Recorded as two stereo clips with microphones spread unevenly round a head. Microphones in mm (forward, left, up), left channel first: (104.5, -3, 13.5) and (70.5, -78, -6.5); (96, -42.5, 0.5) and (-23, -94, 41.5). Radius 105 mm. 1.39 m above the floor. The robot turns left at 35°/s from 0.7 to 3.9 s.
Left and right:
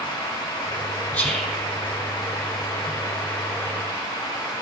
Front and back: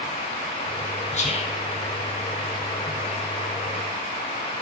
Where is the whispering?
5° right, 4 m; by 1.6 s 20° right, 4 m.